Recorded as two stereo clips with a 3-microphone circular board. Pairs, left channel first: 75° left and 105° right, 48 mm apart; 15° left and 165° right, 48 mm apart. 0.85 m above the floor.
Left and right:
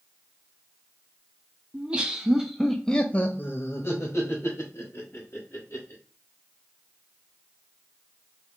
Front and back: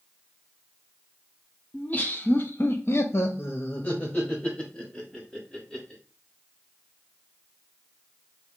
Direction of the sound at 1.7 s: 40° right.